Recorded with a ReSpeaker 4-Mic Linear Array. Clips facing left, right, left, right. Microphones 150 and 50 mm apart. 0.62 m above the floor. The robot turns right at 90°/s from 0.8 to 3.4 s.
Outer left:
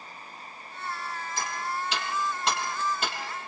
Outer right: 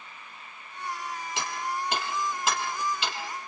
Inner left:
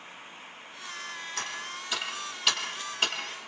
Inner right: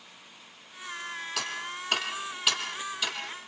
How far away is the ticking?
About 4.5 m.